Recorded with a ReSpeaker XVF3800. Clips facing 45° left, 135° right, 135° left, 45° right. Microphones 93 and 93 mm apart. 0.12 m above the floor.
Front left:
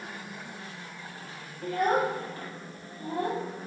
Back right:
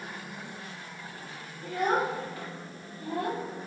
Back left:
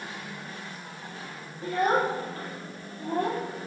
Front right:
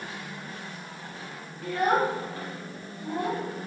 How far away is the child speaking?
About 3 m.